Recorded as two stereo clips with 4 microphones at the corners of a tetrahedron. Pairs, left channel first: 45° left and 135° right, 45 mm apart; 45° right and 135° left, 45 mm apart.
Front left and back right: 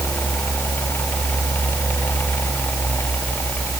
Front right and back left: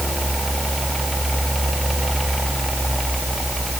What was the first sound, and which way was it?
Only background noise.